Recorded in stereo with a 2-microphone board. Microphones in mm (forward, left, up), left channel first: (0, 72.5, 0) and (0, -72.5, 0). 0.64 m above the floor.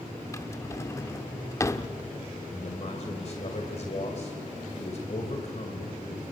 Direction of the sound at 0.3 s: 20° left (ahead or behind).